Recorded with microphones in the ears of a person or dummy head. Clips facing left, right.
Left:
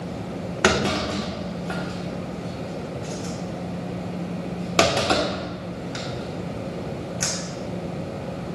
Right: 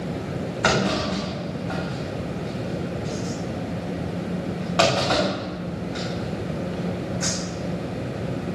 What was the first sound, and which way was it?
A clunk, 45° left (ahead or behind).